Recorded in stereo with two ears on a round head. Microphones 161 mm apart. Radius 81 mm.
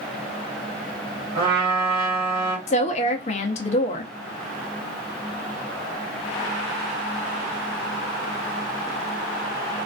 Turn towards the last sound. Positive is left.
turn(degrees=40)  # may be behind; listen again after turning